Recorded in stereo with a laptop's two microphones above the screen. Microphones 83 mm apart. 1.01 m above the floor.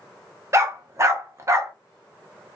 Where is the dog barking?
35° right (ahead or behind), 0.5 m.